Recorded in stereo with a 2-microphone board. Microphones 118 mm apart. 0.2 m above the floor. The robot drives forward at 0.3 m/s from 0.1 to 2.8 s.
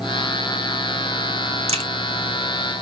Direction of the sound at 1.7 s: 60° right (ahead or behind).